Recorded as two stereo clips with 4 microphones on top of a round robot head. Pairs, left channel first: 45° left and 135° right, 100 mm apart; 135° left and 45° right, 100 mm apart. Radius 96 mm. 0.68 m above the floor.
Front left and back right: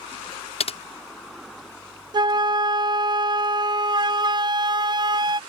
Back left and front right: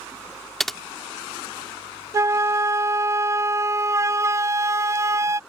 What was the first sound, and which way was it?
Typing on a keyboard, 50° left.